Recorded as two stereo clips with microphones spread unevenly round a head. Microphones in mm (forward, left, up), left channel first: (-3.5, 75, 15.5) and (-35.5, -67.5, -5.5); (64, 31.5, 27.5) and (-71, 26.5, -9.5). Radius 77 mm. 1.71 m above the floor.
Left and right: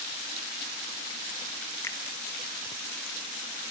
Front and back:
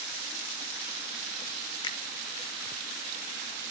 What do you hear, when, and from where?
1.8 s a finger snap: 20° left, 1.1 m